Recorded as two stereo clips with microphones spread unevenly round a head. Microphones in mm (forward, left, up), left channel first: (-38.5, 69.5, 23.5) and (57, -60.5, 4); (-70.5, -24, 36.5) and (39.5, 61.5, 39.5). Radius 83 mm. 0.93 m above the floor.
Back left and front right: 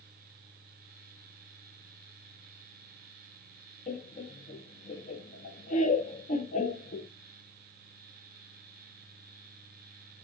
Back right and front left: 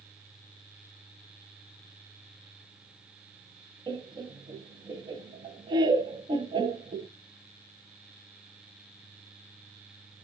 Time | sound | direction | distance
3.9 | laughter | 90° left | 0.7 m